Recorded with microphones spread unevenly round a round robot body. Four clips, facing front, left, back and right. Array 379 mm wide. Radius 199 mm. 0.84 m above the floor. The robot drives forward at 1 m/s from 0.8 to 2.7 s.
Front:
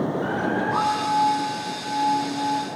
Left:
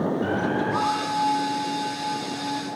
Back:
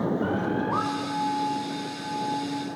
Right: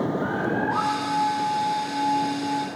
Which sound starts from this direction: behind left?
A bird, at 0.2 s.